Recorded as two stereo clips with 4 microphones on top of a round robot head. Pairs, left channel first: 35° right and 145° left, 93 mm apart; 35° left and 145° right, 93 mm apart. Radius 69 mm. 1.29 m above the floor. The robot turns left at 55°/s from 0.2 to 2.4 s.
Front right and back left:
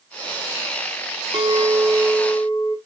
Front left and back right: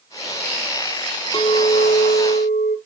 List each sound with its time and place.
1.3 s a clink: 100° left, 1.1 m; by 2.8 s 45° left, 1.1 m